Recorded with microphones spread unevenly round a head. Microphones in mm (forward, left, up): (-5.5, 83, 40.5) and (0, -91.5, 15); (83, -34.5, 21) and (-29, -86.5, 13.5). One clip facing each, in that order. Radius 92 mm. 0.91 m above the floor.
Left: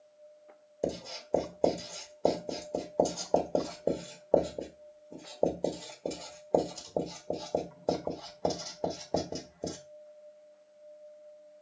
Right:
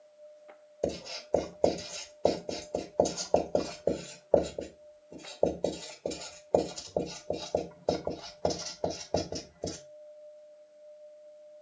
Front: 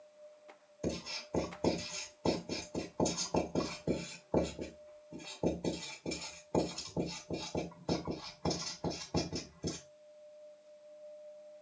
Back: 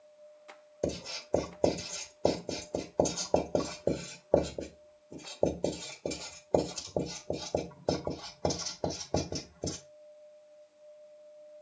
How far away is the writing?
About 1.2 m.